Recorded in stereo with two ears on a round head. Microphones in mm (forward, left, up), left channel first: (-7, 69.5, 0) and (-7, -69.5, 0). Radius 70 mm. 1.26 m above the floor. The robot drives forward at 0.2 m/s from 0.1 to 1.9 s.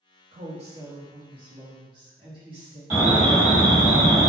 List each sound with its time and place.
0.3 s a woman speaking: 45° right (ahead or behind), 0.9 m; by 2.8 s 35° right (ahead or behind), 1.1 m
2.9 s an alarm: 10° right (ahead or behind), 1.5 m